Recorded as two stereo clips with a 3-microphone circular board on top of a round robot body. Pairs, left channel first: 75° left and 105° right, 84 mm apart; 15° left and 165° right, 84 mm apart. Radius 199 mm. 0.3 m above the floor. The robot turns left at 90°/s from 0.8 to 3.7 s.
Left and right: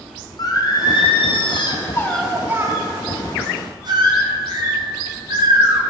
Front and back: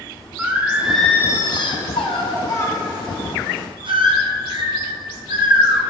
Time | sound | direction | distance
0.4 | singing | 120° left | 1.4 m